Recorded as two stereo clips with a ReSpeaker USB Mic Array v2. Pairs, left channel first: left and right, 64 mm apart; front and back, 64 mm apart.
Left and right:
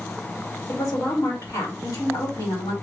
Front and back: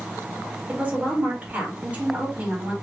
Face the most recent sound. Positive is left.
turn(degrees=115)